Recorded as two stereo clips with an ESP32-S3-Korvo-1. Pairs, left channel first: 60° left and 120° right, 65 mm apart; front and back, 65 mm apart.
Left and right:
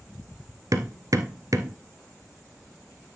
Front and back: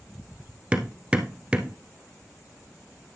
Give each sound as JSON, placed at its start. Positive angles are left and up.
{"t": 0.7, "sound": "hammering", "azimuth_deg": -110, "distance_m": 1.1}